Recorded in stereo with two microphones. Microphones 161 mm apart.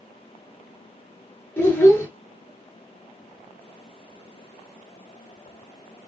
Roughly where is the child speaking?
Centre.